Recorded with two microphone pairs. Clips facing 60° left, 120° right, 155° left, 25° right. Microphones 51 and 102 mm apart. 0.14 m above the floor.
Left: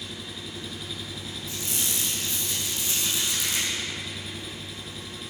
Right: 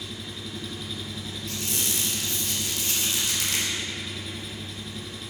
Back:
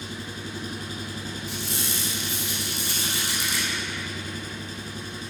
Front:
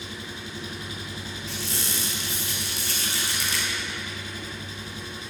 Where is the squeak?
130° right, 2 m.